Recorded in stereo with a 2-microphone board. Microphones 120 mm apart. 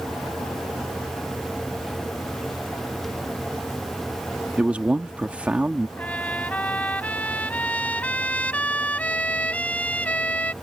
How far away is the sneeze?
I don't hear a sneeze.